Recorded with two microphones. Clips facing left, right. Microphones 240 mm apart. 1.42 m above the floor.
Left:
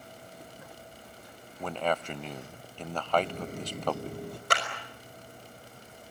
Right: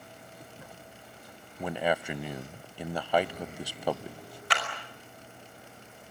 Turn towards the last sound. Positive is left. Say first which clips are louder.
# left 2 dB
turn(degrees=50)  # may be behind; listen again after turning